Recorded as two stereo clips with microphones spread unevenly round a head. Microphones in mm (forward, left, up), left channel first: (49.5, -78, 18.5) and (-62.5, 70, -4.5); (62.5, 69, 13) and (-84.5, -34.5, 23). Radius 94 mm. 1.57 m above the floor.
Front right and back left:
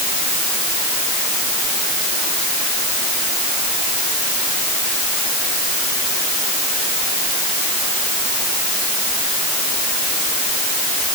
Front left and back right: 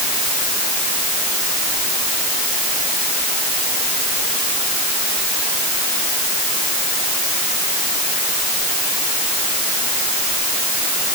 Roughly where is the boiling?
No boiling in this recording.